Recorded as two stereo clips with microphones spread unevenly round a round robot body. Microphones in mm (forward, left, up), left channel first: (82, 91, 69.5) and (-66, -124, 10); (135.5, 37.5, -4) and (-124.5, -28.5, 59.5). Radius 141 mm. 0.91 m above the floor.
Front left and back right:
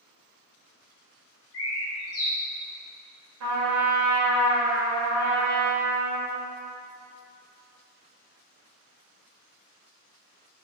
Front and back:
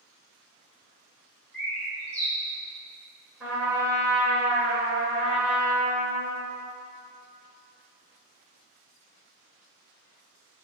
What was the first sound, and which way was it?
A bird, 85° left.